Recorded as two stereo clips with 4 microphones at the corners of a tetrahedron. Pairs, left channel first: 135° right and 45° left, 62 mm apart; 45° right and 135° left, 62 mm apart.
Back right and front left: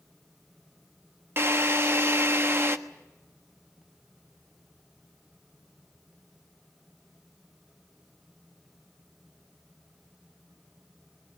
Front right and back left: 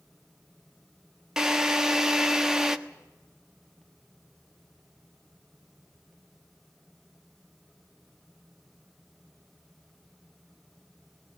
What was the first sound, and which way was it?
A drill, 60° left.